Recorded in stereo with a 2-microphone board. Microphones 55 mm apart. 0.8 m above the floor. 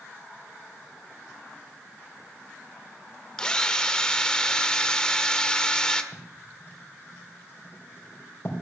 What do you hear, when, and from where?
3.4 s a drill: 15° left (ahead or behind), 1.2 m
6.1 s writing: 45° left (ahead or behind), 3.5 m